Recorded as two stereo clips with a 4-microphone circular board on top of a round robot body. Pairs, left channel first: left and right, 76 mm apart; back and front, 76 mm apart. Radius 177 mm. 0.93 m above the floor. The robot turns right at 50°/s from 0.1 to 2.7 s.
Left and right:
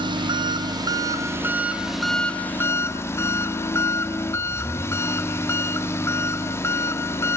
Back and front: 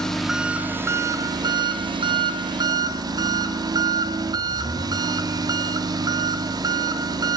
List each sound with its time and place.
0.0 s an engine running: 95° right, 2 m; by 7.4 s 35° left, 2 m